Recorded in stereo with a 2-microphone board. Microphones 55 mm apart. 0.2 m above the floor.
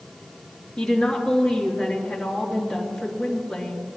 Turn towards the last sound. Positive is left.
turn(degrees=10)  # may be behind; listen again after turning